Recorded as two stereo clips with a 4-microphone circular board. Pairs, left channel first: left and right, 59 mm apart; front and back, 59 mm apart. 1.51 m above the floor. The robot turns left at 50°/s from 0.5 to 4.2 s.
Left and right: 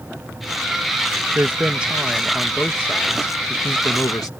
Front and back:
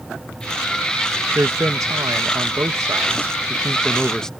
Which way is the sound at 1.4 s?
135° right.